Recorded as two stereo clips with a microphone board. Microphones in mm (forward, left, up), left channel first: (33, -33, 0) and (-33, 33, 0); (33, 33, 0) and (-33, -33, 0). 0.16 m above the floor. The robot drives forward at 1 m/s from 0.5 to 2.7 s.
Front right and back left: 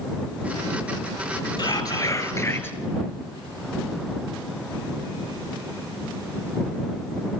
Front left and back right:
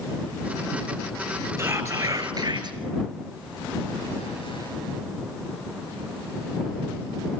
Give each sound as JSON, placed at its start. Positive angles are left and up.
{"t": 1.6, "sound": "whispering", "azimuth_deg": -75, "distance_m": 2.0}